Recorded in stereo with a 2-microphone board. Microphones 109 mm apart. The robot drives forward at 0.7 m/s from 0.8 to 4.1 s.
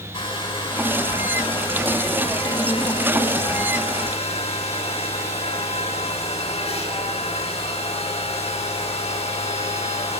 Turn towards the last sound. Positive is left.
turn(degrees=65)  # may be behind; listen again after turning